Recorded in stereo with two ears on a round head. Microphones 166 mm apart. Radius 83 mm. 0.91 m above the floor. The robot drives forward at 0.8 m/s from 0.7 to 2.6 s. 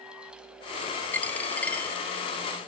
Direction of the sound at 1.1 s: 10° left (ahead or behind).